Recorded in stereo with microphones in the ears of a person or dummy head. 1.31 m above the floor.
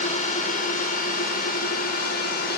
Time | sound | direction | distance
0.0 | a drone | 40° left (ahead or behind) | ?